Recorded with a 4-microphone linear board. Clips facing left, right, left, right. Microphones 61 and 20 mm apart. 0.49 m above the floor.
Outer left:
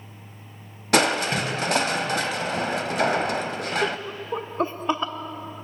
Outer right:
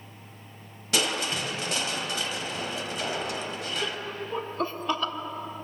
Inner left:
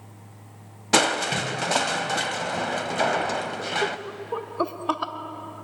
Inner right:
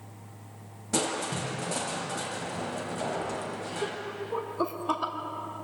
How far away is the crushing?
About 0.8 m.